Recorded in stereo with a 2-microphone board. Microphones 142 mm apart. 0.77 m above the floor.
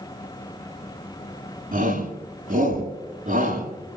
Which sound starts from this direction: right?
A shout, at 1.7 s.